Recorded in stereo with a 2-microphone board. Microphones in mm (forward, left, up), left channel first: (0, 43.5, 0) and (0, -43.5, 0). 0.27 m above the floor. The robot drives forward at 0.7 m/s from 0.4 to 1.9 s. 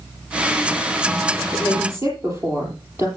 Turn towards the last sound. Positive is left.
turn(degrees=-30)  # may be behind; listen again after turning